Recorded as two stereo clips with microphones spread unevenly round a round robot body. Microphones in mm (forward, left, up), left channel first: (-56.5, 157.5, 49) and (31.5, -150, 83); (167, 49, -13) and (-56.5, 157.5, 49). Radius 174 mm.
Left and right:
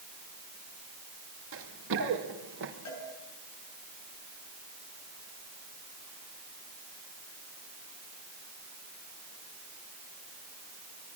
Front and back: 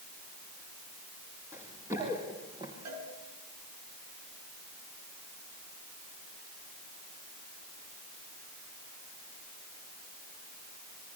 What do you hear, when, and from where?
1.5 s running footsteps: 125° right, 5 m; by 2.7 s 130° right, 4.5 m
2.9 s a cowbell: 145° left, 7.5 m